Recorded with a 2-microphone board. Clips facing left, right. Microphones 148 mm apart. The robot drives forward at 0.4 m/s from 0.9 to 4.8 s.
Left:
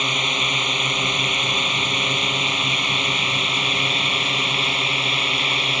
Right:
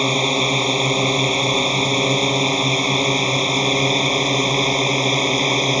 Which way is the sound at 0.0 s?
35° right (ahead or behind).